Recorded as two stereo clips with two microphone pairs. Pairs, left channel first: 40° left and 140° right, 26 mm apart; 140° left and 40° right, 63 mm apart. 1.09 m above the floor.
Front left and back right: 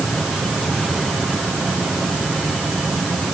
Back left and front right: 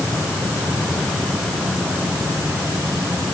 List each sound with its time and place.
Only background noise.